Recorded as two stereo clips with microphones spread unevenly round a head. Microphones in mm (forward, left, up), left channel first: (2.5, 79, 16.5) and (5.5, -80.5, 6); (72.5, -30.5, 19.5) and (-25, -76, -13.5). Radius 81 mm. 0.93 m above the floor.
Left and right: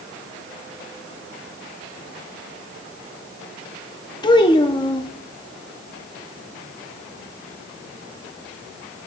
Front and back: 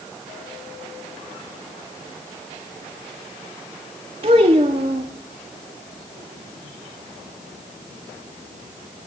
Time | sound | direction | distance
4.2 | a child speaking | 155° left | 1.1 m